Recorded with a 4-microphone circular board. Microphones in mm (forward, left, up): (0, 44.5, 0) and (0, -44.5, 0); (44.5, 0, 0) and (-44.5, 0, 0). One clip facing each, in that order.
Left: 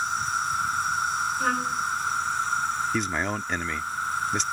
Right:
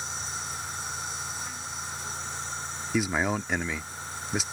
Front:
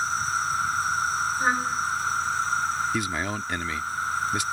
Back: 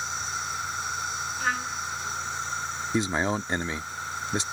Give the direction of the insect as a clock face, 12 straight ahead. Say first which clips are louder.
Left 11 dB, front 7 dB; 10 o'clock.